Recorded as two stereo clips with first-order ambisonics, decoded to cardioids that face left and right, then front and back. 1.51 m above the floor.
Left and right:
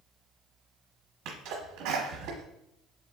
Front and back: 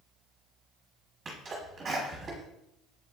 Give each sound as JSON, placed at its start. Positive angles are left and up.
{"t": 1.2, "sound": "a sneeze", "azimuth_deg": -110, "distance_m": 1.2}